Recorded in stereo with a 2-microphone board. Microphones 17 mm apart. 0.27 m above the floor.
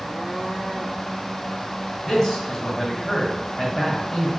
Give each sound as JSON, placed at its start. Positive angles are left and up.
{"t": 2.0, "sound": "a man speaking", "side_deg": 25, "distance_m": 1.6}